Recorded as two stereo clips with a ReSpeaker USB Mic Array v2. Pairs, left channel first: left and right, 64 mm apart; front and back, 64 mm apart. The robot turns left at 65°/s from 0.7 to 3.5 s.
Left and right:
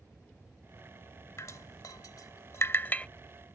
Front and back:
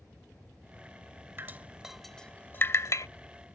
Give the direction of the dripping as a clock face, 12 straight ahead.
8 o'clock.